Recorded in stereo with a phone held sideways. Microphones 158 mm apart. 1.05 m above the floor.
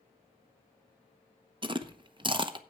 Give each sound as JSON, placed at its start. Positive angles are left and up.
{"t": 1.6, "sound": "chewing", "side_deg": -35, "distance_m": 0.8}